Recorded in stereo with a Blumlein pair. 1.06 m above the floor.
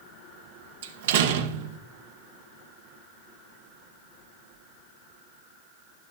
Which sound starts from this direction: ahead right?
A door slam, at 0.8 s.